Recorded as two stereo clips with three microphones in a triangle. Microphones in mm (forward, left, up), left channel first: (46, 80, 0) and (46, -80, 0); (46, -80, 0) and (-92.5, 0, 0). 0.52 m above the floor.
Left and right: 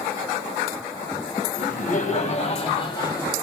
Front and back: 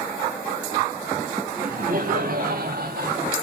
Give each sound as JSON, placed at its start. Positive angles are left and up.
{"t": 1.6, "sound": "laughter", "azimuth_deg": 120, "distance_m": 3.0}